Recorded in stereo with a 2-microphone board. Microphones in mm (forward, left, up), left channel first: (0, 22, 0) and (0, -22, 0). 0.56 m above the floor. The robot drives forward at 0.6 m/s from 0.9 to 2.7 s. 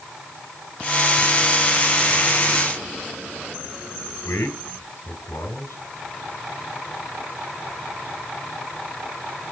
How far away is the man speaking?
About 3.5 m.